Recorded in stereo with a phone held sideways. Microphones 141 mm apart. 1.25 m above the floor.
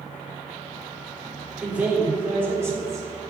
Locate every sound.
1.6 s a man speaking: 10° right (ahead or behind), 4 m; by 3.1 s 25° right (ahead or behind), 3.5 m